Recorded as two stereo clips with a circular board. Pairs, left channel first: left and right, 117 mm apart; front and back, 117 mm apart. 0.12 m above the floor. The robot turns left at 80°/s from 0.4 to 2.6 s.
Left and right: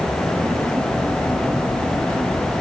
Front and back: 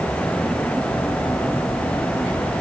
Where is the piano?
No piano in this recording.